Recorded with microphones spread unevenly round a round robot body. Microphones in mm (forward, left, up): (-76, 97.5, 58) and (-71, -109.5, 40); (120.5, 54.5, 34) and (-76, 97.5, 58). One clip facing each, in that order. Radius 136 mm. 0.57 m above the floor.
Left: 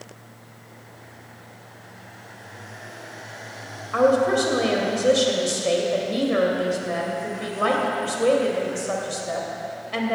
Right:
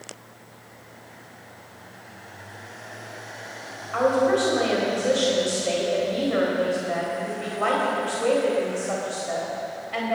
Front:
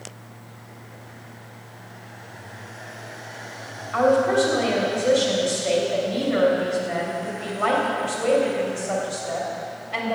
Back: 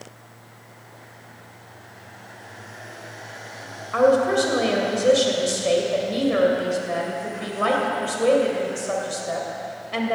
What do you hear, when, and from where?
3.9 s a woman speaking: 130° left, 3 m